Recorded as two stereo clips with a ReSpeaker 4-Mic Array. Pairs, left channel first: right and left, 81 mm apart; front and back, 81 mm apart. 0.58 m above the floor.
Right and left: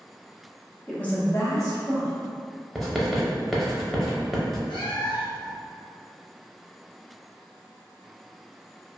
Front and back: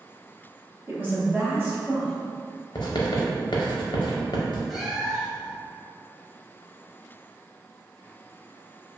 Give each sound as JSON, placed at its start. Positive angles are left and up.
{"t": 0.9, "sound": "a woman speaking", "azimuth_deg": -160, "distance_m": 0.7}
{"t": 2.8, "sound": "writing", "azimuth_deg": 0, "distance_m": 0.5}
{"t": 4.7, "sound": "a cat meowing", "azimuth_deg": -90, "distance_m": 0.5}